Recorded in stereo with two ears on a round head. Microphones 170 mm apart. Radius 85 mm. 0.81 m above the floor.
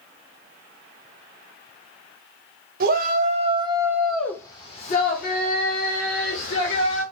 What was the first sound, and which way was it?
A shout, 50° right (ahead or behind).